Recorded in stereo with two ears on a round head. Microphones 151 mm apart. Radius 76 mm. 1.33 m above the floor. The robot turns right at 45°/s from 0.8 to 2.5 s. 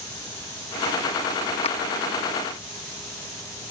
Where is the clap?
35° left (ahead or behind); by 1.8 s 40° left (ahead or behind).